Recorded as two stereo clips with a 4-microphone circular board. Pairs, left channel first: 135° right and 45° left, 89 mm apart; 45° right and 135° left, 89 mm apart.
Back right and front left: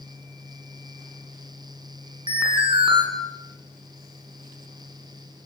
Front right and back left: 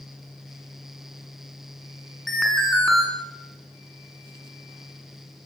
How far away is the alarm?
About 6 m.